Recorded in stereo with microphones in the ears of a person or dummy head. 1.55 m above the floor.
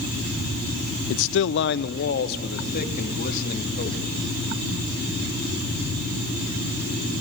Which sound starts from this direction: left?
A man speaking, at 1.1 s.